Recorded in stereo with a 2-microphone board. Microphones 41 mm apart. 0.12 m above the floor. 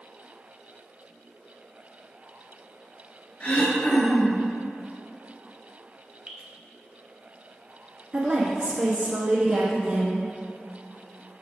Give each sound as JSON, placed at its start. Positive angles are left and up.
{"t": 3.4, "sound": "throat clearing", "side_deg": 35, "distance_m": 2.0}
{"t": 6.3, "sound": "dripping", "side_deg": -30, "distance_m": 0.9}
{"t": 8.1, "sound": "a woman speaking", "side_deg": -20, "distance_m": 1.6}